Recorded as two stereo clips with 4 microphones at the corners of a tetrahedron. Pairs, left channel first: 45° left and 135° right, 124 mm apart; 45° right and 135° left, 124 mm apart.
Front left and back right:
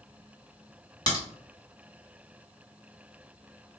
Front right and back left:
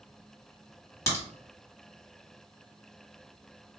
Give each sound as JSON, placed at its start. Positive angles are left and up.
{"t": 1.1, "sound": "a crack", "azimuth_deg": 5, "distance_m": 1.4}